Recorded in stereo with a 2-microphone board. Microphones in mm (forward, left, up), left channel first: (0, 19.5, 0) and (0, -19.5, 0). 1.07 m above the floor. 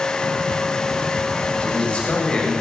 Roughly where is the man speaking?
Left.